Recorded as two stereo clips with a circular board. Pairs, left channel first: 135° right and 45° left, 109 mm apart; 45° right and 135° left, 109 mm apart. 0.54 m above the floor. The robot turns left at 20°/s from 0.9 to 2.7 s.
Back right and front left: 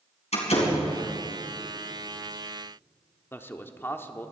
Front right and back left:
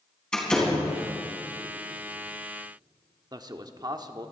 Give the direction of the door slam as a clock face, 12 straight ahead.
4 o'clock.